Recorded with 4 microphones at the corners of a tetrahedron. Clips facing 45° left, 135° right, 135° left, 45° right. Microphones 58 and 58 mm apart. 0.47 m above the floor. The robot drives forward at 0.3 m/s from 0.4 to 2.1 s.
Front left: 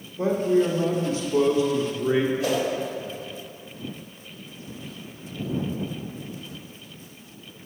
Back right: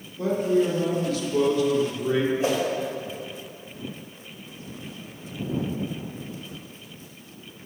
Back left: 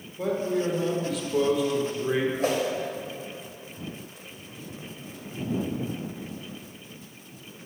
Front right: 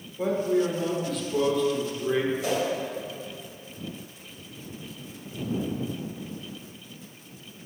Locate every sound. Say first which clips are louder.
0.2 s a man speaking: front left 1 dB, front right 2 dB; 35° left, 1.3 m; by 2.3 s 75° left, 1.1 m
2.4 s a whoosh: even, back left 2 dB; 165° left, 2 m